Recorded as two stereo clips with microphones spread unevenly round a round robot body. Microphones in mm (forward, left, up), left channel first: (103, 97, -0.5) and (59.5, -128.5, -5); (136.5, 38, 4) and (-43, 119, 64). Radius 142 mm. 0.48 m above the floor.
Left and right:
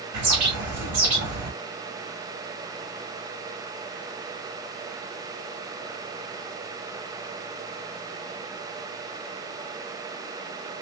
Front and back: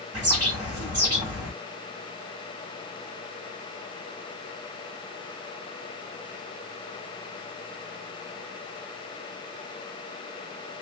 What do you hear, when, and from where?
0.1 s a bird: 125° right, 1.5 m